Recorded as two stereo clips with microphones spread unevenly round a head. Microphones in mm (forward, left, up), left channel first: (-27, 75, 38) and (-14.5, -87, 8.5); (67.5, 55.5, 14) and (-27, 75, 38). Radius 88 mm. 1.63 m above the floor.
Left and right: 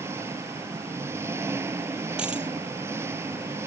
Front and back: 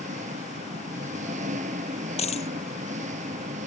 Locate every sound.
0.0 s an engine running: 160° right
2.2 s a dropped coin: straight ahead